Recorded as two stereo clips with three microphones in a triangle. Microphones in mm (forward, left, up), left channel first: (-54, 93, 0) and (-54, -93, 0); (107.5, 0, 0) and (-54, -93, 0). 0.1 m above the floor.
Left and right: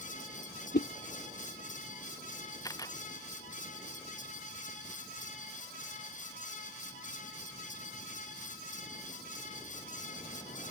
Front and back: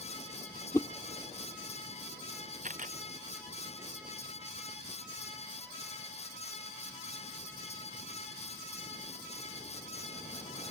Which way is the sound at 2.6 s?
160° left.